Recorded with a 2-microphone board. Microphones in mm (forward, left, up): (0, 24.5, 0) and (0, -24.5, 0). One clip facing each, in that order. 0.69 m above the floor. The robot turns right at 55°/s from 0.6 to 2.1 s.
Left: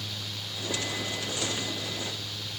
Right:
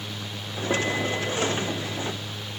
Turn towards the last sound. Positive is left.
No sound to turn to.